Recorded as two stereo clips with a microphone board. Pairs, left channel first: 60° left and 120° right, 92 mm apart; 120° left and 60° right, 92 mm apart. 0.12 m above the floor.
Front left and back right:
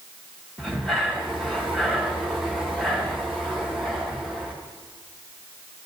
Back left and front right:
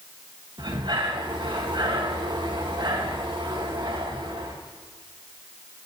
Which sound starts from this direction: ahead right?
Breathing, at 0.6 s.